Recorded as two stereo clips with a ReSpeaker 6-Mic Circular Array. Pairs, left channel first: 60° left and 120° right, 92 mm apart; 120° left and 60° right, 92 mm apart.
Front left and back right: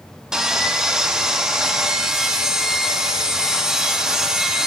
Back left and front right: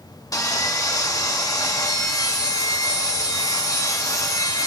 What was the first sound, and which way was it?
Sawing, 160° left.